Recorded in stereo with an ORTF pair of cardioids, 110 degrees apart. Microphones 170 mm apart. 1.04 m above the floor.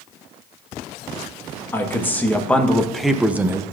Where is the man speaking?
15° left, 1.5 m; by 3.6 s 35° right, 0.5 m.